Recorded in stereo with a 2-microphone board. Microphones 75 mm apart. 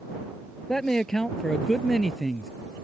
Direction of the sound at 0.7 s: 5° left (ahead or behind).